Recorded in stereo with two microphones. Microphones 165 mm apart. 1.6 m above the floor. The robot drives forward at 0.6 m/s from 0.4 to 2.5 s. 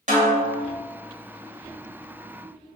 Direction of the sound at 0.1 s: 45° right (ahead or behind).